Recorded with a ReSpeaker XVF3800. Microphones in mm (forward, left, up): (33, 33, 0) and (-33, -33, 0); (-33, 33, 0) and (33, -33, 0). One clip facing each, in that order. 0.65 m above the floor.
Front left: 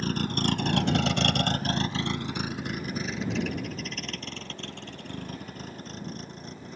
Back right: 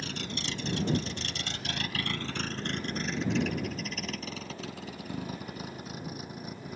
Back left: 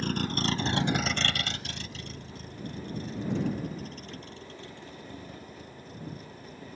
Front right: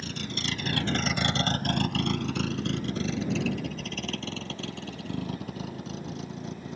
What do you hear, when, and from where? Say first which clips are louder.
0.0 s a vehicle: front left 9 dB, back left 5 dB; 95° left; by 6.8 s 55° right